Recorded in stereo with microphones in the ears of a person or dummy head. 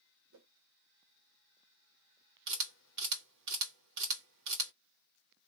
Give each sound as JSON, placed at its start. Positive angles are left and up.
{"t": 0.3, "sound": "a whoosh", "side_deg": -70, "distance_m": 0.9}
{"t": 2.5, "sound": "a camera shutter", "side_deg": -65, "distance_m": 1.5}